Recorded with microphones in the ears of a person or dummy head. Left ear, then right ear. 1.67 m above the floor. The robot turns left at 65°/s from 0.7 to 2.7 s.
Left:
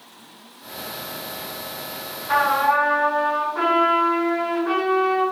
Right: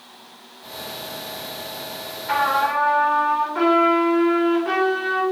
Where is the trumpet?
65° right (ahead or behind), 5 m; by 5.2 s 90° right, 5 m.